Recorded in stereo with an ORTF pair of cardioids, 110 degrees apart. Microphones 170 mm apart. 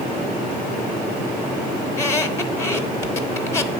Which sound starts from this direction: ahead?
A squeak, at 1.9 s.